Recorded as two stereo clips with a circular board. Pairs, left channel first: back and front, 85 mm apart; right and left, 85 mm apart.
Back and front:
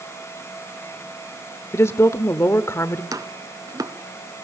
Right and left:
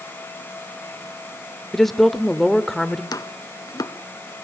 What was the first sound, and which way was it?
A woman speaking, 175° right.